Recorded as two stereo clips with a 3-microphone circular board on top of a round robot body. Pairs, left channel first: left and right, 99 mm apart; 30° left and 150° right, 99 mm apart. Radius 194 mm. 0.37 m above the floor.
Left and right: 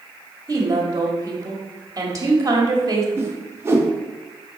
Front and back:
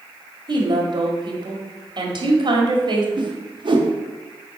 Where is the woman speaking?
135° right, 1.8 m.